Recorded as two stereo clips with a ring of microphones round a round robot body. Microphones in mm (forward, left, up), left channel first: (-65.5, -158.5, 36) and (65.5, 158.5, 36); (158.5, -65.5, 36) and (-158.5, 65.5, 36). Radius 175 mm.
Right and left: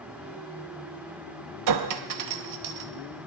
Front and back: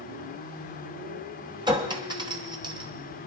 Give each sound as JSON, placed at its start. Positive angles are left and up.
{"t": 1.7, "sound": "a clink", "azimuth_deg": 80, "distance_m": 0.8}